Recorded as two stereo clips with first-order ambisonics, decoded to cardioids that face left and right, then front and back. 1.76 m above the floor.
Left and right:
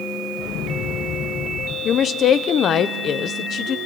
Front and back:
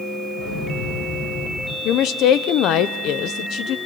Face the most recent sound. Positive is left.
turn(degrees=35)